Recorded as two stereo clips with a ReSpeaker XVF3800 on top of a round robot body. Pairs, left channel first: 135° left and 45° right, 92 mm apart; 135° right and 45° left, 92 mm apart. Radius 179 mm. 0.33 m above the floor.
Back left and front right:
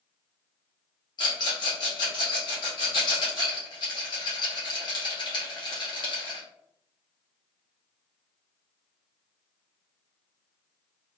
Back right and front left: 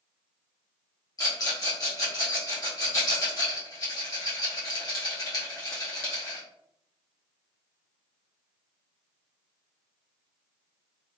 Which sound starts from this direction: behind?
A rattle, at 1.2 s.